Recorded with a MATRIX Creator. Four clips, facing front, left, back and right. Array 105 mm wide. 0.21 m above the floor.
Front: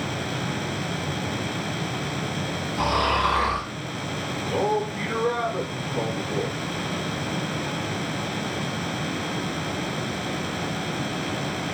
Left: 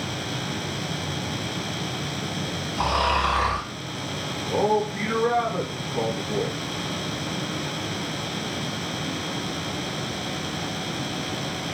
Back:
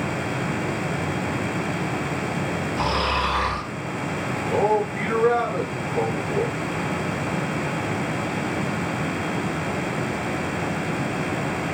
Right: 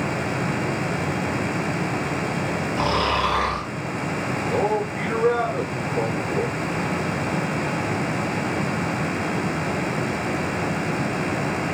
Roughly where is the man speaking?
Behind.